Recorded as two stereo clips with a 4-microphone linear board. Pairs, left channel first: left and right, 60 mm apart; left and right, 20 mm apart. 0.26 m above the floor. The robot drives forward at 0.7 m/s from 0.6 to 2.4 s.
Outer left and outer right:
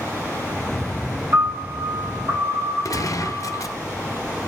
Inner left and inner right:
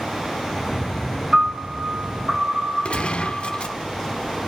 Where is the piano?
85° right, 6.5 m.